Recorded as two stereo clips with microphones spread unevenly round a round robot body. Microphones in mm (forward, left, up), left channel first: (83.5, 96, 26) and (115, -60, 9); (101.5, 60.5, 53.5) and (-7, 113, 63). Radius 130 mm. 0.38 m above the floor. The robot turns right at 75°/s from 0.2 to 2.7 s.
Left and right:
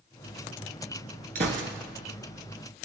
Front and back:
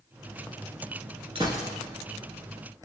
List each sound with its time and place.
1.4 s a gunshot: 140° right, 0.7 m; by 1.7 s 110° right, 0.7 m